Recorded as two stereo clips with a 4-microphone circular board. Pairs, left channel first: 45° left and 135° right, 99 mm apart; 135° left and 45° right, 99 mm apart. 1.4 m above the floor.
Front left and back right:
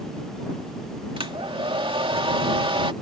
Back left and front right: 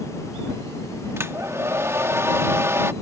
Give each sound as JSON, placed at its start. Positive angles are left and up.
{"t": 1.2, "sound": "a hair dryer", "azimuth_deg": -110}